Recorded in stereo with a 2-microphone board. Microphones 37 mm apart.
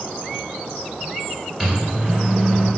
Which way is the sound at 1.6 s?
15° right (ahead or behind).